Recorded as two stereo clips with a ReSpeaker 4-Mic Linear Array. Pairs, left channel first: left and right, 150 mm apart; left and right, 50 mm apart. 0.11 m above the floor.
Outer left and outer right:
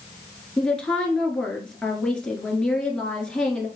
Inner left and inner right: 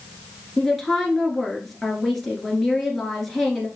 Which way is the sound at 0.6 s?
5° left (ahead or behind).